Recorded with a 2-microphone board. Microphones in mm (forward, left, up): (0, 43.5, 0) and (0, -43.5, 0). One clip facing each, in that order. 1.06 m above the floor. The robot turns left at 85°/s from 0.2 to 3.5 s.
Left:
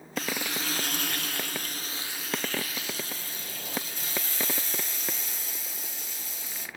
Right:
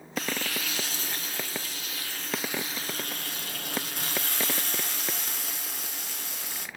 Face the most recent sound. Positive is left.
turn(degrees=-100)